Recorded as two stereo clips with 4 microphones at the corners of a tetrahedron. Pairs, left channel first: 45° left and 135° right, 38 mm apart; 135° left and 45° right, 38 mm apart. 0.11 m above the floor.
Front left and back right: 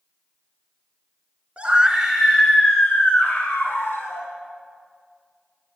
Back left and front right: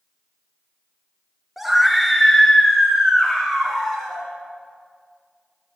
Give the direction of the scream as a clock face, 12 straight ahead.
4 o'clock.